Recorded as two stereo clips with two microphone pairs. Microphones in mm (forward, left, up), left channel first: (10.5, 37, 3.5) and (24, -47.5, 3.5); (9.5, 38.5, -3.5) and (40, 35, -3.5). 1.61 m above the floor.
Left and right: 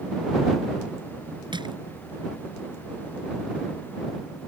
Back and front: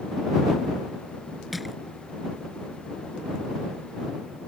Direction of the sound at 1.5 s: 95° right.